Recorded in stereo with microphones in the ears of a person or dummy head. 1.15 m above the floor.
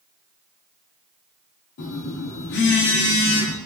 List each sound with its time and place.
1.8 s a phone buzzing: 55° left (ahead or behind), 0.9 m